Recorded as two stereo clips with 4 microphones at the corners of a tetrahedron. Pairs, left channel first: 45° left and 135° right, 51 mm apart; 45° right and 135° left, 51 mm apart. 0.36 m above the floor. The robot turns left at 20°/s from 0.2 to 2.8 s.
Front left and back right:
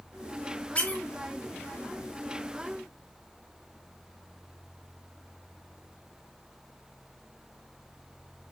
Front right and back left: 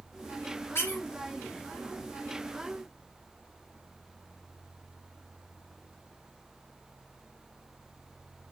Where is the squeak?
20° right, 3.5 m; by 1.0 s 25° right, 3.5 m.